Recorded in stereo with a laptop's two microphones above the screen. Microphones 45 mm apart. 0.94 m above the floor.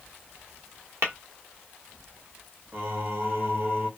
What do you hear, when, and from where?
1.0 s tapping: 65° right (ahead or behind), 0.8 m
2.7 s singing: 45° right (ahead or behind), 0.7 m